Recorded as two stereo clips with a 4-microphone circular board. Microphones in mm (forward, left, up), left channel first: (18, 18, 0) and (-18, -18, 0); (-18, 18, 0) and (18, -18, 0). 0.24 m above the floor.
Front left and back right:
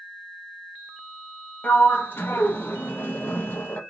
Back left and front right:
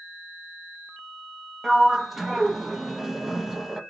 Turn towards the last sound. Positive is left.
turn(degrees=40)